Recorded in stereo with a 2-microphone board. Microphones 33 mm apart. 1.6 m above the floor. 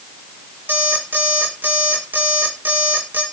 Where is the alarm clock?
80° right, 3 m.